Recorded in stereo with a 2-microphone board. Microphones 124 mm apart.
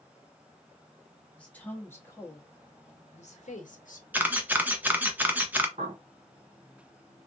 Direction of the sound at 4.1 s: 15° right (ahead or behind).